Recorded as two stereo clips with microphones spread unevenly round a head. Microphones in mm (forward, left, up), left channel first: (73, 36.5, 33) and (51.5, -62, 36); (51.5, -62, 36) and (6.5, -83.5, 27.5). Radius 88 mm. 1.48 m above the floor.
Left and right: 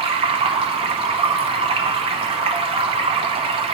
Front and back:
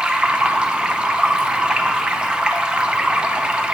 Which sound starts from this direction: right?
Running water, at 0.0 s.